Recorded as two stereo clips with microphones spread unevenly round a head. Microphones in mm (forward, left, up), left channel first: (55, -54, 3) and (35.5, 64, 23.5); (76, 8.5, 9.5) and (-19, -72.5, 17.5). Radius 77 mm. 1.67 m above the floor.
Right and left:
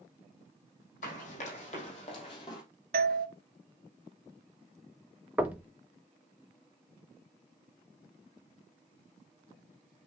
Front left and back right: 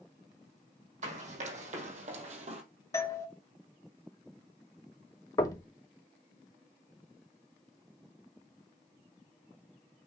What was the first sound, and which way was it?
Running footsteps, 125° right.